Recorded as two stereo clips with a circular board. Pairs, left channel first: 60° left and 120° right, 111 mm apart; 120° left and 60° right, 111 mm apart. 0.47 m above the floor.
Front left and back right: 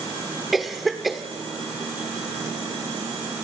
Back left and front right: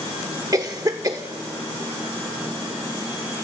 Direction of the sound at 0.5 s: 30° right.